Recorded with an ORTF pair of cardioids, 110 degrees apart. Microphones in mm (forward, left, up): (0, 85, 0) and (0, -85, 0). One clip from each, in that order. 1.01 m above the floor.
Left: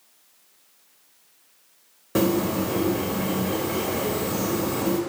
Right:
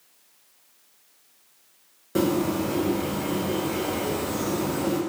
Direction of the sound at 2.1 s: 20° left.